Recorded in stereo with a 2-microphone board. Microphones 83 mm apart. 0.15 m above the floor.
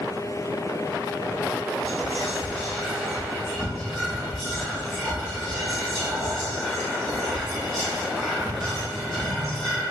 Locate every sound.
1.8 s whispering: 5° left (ahead or behind), 1.1 m